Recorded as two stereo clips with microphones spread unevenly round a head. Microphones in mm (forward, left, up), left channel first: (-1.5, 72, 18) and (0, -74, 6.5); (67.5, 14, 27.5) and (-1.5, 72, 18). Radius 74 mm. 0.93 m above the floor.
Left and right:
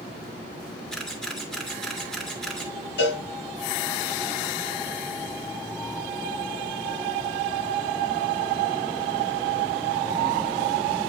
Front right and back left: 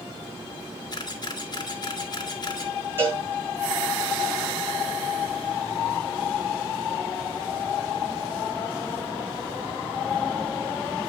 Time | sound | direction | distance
0.9 | a camera shutter | 5° left | 2 m
3.0 | a cowbell | 75° left | 6 m